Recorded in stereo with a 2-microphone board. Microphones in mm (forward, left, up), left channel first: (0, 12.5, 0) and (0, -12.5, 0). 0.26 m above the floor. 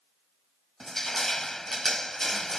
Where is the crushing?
15° left (ahead or behind).